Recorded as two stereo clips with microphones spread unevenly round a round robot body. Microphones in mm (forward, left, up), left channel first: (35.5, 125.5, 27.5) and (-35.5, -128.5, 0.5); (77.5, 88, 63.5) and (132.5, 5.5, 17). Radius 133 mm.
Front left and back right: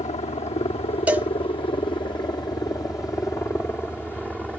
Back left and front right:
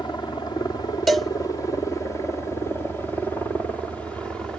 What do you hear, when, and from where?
0.0 s a helicopter: 95° left; by 4.6 s 20° right
1.1 s a cowbell: 40° right